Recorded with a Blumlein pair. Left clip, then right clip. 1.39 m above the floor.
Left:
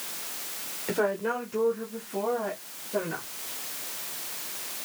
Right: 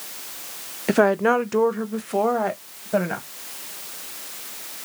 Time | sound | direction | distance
0.9 | a woman speaking | 25° right | 0.6 m